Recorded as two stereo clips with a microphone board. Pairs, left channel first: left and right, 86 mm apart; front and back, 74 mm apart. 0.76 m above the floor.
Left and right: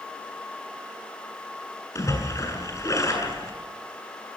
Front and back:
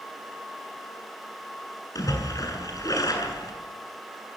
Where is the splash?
40° left, 7.5 m.